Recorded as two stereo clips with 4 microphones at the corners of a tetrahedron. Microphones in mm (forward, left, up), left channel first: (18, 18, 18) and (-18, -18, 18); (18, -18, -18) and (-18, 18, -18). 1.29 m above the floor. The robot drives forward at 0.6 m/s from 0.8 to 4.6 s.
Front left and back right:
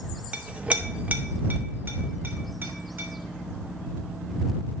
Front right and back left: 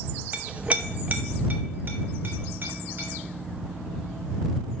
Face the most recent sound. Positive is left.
turn(degrees=180)